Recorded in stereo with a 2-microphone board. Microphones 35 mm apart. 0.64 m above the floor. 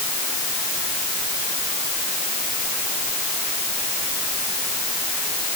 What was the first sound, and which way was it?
Only background noise.